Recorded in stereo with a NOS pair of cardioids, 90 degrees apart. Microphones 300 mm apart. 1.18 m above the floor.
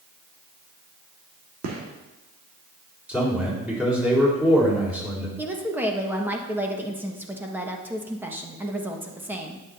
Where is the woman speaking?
5° right, 1.5 m.